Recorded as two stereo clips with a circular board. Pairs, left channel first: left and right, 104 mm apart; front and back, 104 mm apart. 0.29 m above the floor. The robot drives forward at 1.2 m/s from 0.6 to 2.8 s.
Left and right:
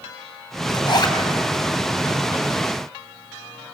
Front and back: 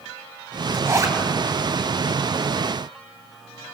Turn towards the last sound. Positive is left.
turn(degrees=155)